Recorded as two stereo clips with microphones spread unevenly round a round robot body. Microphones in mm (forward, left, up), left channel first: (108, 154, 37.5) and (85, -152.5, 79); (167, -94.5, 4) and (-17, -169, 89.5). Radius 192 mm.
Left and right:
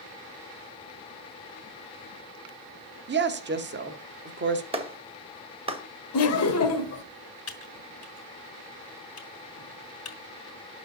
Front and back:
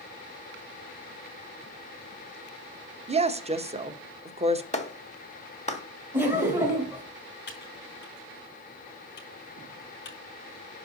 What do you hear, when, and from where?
3.1 s a woman speaking: 80° right, 1.2 m
4.7 s a clap: 20° right, 2 m
6.1 s laughter: 105° left, 1.5 m
7.5 s typing on a keyboard: 45° left, 3 m